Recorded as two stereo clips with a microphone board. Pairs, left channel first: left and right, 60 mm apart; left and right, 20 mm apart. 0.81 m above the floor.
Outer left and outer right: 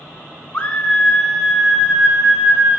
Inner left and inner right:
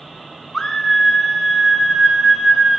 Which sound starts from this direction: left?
A scream, at 0.5 s.